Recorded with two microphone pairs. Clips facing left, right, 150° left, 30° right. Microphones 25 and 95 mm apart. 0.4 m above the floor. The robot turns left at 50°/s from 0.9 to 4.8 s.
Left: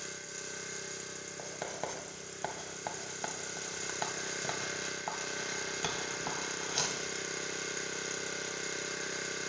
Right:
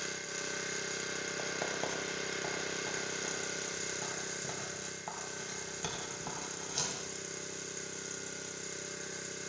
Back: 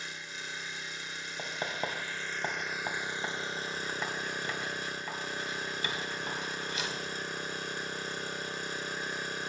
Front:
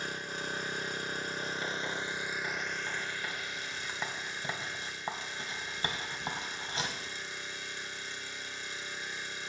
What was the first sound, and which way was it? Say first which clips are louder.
An engine running: right 4 dB, front 5 dB; 30° right.